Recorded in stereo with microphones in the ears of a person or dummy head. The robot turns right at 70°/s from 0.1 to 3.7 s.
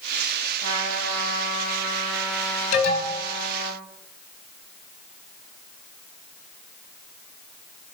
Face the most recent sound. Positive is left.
turn(degrees=120)